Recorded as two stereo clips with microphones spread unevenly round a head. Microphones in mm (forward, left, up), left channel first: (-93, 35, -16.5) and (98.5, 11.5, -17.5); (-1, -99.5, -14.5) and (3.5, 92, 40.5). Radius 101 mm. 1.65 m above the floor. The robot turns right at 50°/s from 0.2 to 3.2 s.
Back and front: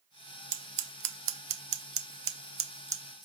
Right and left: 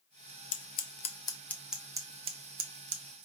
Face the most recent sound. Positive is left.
turn(degrees=80)